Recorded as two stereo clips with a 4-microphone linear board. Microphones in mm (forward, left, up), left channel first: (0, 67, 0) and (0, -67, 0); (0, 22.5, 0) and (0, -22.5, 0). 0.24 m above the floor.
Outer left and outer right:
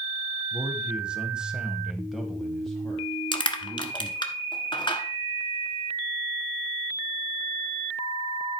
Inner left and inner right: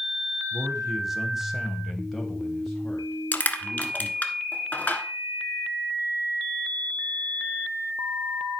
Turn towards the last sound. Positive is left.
turn(degrees=35)  # may be behind; listen again after turning